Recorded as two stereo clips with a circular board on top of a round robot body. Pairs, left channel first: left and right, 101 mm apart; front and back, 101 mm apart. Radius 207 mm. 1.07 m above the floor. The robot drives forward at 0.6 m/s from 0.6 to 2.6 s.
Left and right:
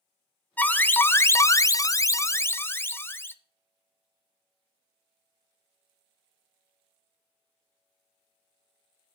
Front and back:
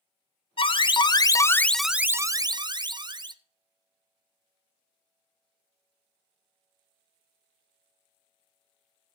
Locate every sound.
0.6 s an alarm: 20° left, 1.0 m; by 3.4 s 150° left, 0.8 m